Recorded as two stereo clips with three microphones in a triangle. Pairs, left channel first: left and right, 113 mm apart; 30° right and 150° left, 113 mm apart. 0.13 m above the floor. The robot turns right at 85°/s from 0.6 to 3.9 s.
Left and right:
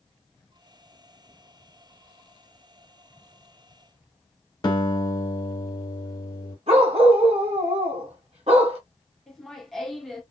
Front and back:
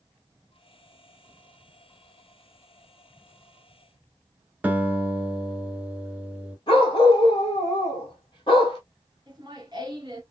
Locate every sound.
4.6 s a guitar: 80° left, 1.1 m
6.7 s a dog barking: 70° right, 1.5 m
9.3 s laughter: 175° left, 1.5 m